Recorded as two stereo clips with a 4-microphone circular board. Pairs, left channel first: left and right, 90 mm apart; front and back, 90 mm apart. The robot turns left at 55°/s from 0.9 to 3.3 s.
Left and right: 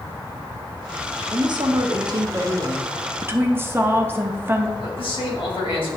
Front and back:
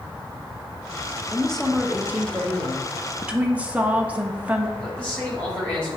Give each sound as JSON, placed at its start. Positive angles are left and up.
{"t": 1.3, "sound": "a woman speaking", "azimuth_deg": -70, "distance_m": 0.8}
{"t": 3.2, "sound": "a woman speaking", "azimuth_deg": -115, "distance_m": 0.7}
{"t": 4.8, "sound": "a man speaking", "azimuth_deg": 75, "distance_m": 2.5}